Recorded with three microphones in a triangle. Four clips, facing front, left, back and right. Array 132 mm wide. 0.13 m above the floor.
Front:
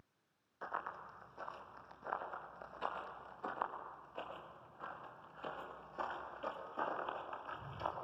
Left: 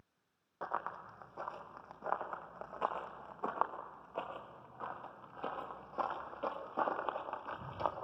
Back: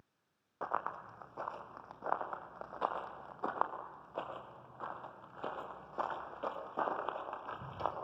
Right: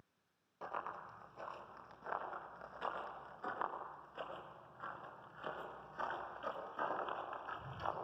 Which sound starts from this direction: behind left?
Running footsteps, at 0.6 s.